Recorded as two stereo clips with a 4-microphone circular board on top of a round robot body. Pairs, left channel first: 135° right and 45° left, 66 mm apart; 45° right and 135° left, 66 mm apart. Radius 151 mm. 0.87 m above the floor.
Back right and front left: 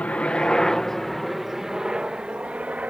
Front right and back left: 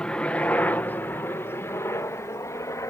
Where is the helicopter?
100° right; by 2.9 s 20° right.